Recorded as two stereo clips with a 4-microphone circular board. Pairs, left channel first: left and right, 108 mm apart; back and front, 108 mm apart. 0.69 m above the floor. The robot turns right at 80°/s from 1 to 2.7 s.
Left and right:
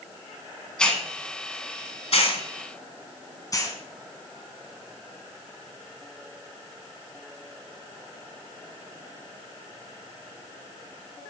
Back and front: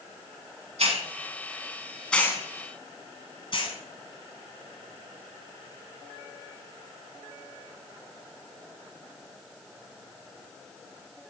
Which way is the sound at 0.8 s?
10° left.